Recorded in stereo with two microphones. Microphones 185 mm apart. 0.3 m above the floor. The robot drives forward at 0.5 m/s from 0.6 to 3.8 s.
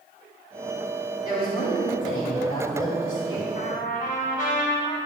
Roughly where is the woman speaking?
Left.